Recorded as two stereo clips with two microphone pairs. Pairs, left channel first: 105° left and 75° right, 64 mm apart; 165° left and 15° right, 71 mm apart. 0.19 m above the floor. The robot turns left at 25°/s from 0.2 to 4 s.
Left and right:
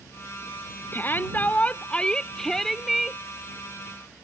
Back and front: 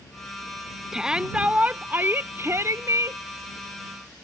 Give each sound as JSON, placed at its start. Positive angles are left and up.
{"t": 0.9, "sound": "a shout", "azimuth_deg": 65}